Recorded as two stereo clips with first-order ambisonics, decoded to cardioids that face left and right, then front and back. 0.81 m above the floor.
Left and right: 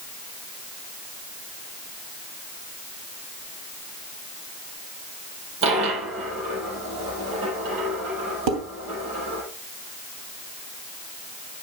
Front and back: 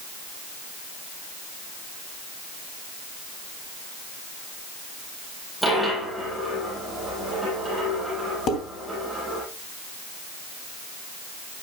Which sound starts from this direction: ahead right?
Dishes clattering, at 8.5 s.